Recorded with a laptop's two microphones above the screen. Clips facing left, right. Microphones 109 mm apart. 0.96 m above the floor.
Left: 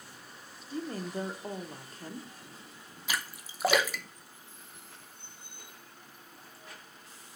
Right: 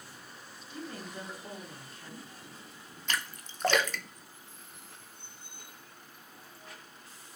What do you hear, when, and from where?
0.7 s a woman speaking: 35° left (ahead or behind), 0.9 m
3.1 s a splash: 10° left (ahead or behind), 0.7 m